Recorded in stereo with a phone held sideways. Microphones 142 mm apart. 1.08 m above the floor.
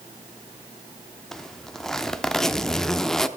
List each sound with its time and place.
1.3 s a zipper: 5° left (ahead or behind), 0.6 m